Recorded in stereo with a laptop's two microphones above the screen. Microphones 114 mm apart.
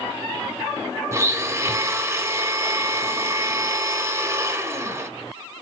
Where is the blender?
25° right (ahead or behind), 0.6 m.